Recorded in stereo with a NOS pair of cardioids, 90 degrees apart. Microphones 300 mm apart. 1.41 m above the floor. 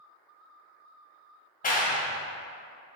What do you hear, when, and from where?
1.6 s a clap: 25° left, 1.0 m